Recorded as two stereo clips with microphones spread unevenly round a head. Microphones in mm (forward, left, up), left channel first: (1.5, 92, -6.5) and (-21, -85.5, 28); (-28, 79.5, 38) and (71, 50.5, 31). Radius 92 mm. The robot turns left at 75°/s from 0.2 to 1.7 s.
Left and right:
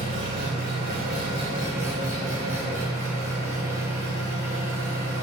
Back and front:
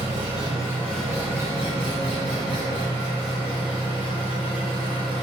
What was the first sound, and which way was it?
An engine running, 55° right.